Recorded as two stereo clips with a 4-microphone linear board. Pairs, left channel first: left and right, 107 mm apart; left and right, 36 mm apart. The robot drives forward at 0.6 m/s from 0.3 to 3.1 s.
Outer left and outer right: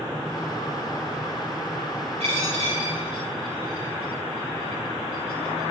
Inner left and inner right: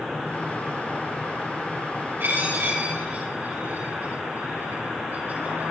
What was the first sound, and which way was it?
A dropped coin, 85° right.